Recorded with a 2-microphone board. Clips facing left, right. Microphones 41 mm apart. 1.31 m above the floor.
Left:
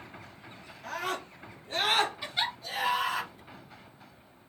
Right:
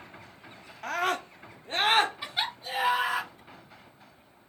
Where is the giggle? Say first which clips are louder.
Even; 20° right (ahead or behind), 1.4 m.